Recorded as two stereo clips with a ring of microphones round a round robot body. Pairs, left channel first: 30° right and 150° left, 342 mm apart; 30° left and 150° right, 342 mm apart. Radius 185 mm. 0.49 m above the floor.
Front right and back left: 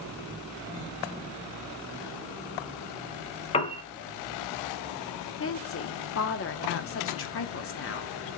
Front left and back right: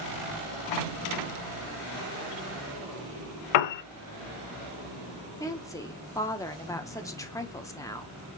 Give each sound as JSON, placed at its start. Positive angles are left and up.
{"t": 3.5, "sound": "a piano", "azimuth_deg": 45, "distance_m": 0.5}
{"t": 5.4, "sound": "a woman speaking", "azimuth_deg": -45, "distance_m": 0.8}